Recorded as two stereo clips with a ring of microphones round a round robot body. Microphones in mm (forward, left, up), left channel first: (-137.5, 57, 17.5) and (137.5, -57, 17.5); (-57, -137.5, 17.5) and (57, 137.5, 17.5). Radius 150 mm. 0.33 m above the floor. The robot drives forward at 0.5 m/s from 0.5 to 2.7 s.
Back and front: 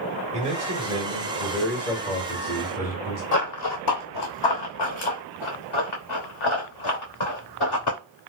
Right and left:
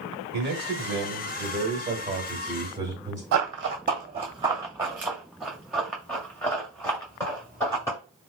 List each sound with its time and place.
0.3 s a man speaking: 35° left, 1.3 m; by 3.2 s 135° left, 1.1 m
3.3 s running footsteps: 105° left, 0.7 m; by 8.0 s 170° left, 3 m